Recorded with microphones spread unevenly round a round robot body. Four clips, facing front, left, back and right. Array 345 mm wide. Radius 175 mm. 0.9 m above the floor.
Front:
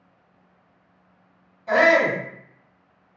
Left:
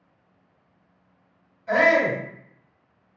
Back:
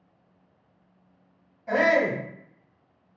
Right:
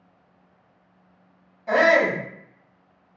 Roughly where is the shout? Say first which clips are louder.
Right 1 dB, front 4 dB; right.